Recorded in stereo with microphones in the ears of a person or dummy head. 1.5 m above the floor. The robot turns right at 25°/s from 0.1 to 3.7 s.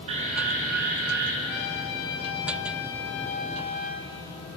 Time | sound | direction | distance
0.1 | an alarm | 140° right | 3 m
1.4 | a trumpet | 80° left | 2.5 m